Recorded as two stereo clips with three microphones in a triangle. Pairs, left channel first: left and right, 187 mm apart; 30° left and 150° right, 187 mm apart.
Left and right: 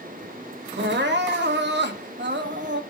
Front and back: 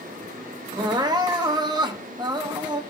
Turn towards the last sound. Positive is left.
turn(degrees=-80)